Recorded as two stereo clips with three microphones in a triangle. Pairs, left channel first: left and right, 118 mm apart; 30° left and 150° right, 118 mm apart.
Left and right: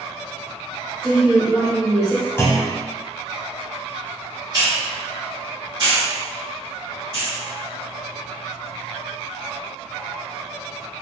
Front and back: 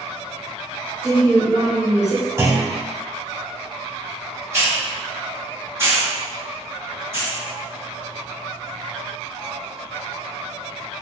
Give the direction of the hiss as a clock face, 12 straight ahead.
3 o'clock.